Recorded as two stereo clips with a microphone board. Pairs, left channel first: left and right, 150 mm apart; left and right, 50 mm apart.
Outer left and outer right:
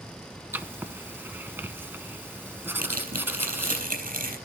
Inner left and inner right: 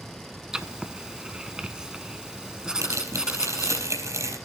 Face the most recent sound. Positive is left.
turn(degrees=-70)  # may be behind; listen again after turning